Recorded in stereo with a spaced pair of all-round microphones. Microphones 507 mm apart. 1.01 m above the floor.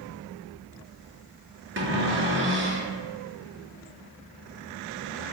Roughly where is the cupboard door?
Right.